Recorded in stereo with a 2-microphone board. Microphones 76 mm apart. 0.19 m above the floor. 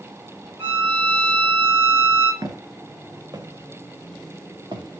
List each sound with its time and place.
0.6 s a violin: 30° right (ahead or behind), 6.5 m
2.4 s footsteps: 55° right (ahead or behind), 3 m; by 5.0 s 80° right, 3 m